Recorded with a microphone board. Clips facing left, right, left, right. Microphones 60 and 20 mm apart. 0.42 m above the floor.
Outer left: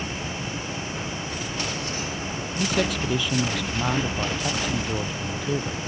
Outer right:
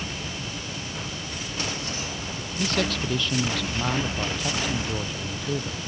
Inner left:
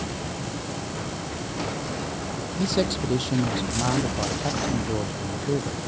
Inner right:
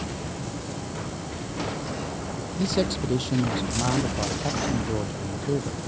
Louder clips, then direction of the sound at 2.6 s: Outer left 1 dB, inner left 1 dB; 10° left (ahead or behind).